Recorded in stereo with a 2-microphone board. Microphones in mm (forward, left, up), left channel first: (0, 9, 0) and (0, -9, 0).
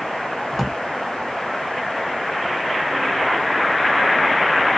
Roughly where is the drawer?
Centre.